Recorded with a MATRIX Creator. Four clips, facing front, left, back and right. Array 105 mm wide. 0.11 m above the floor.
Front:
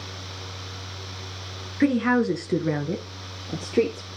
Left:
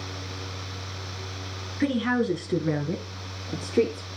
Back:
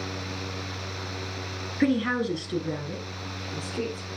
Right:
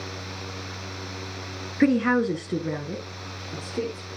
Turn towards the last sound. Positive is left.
turn(degrees=30)